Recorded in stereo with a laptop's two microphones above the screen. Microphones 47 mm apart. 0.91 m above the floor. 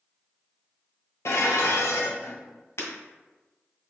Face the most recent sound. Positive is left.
turn(degrees=75)  # may be behind; listen again after turning